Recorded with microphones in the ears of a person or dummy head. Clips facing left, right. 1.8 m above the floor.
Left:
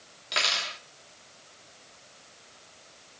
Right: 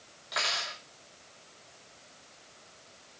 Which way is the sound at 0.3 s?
45° left (ahead or behind).